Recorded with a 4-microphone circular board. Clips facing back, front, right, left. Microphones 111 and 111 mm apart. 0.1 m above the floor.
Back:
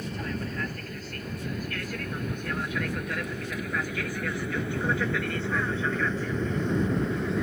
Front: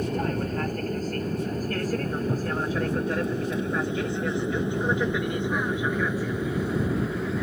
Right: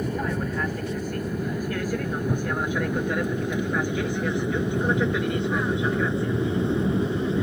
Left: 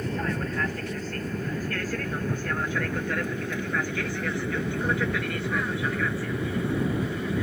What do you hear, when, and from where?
0.0 s an aircraft: 15° right; by 7.4 s 85° right